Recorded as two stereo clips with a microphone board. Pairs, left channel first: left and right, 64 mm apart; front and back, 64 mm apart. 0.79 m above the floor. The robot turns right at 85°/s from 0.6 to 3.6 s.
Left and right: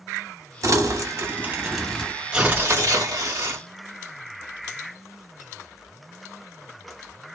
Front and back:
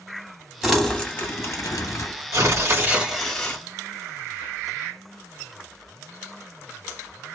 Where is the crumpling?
100° right, 1.1 m; by 2.1 s 25° left, 1.1 m.